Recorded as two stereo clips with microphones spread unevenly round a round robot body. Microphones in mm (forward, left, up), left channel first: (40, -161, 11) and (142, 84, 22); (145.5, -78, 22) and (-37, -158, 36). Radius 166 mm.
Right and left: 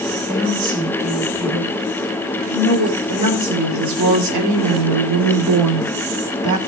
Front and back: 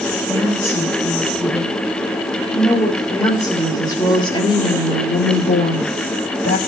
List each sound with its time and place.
0.3 s a woman speaking: 125° left, 4 m; by 6.6 s 70° left, 2.5 m